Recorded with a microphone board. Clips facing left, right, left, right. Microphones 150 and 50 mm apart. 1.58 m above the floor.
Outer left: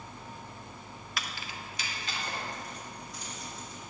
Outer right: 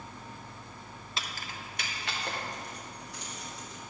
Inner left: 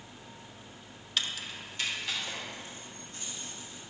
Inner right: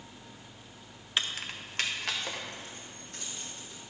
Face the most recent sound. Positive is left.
turn(degrees=-75)  # may be behind; listen again after turning